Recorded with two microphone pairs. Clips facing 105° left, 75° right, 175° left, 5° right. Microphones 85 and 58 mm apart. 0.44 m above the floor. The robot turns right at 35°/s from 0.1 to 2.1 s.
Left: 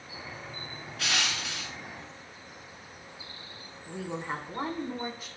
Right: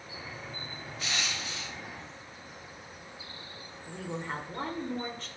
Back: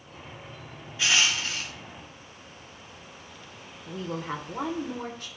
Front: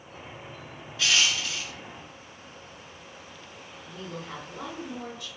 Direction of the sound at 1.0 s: 105° left.